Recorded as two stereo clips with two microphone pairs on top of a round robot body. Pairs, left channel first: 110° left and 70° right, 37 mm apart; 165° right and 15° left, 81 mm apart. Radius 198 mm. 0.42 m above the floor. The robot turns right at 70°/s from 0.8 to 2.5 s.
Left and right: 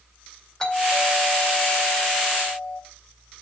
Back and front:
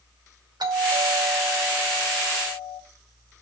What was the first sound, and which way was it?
A doorbell, 40° left.